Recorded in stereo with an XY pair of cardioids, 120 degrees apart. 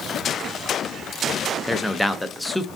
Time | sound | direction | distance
1.7 | a man speaking | 5° left | 0.6 m